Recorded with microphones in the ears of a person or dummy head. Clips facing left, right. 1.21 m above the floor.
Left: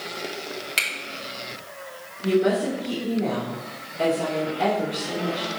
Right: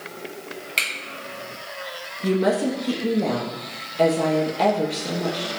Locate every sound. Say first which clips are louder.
0.8 s a finger snap: even; 10° left (ahead or behind), 1.8 m
2.2 s a woman speaking: even; 80° right, 1.2 m